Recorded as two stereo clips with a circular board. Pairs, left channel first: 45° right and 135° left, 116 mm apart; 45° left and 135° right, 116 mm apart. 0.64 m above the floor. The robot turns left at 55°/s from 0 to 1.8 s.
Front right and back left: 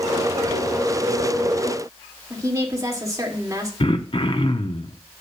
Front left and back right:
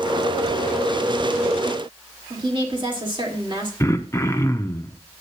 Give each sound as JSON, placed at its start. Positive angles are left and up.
{"t": 2.3, "sound": "a woman speaking", "azimuth_deg": -170, "distance_m": 2.0}
{"t": 3.8, "sound": "throat clearing", "azimuth_deg": -15, "distance_m": 0.7}